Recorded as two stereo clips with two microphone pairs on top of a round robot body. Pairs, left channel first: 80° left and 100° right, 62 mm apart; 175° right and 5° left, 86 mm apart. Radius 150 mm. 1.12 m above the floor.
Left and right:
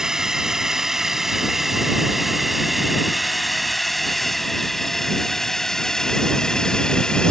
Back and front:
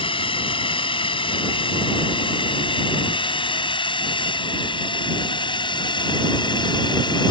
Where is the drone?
Straight behind; by 7.3 s 155° left.